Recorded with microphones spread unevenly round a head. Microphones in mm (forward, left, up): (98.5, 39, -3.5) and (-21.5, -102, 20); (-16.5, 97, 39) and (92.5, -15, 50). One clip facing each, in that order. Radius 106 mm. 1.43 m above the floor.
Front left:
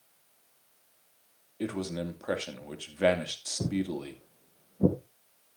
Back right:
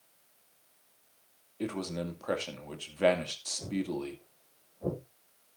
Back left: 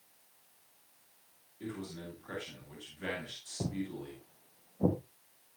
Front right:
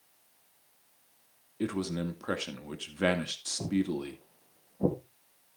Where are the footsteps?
45° left, 2.5 m; by 5.0 s 35° left, 3.5 m.